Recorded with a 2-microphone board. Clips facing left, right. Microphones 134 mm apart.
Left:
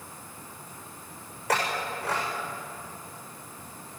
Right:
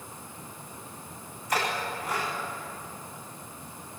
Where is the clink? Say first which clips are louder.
Left 1 dB; 70° left (ahead or behind), 9.5 m.